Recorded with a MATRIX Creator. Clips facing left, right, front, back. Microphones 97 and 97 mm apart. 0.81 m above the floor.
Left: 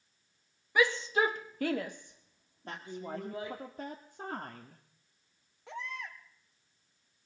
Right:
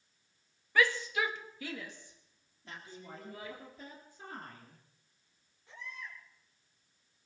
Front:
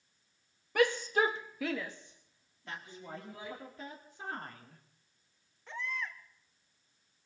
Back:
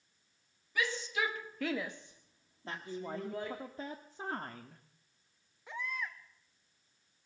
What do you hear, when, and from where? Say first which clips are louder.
0.8 s a shout: left 2 dB, front 7 dB; 15° left, 1.4 m; by 3.6 s 150° left, 3 m
2.7 s a woman speaking: left 8 dB, back 5 dB; 125° left, 1.7 m
5.7 s a baby crying: left 6 dB, front 1 dB; 100° left, 1.9 m